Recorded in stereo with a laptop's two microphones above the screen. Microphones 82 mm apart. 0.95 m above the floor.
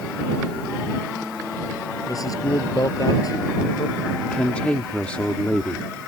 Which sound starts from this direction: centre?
A woman speaking, at 4.2 s.